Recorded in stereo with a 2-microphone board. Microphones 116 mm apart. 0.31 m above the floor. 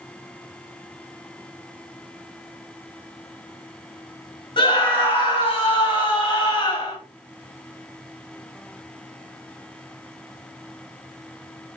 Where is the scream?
45° left (ahead or behind), 1.8 m.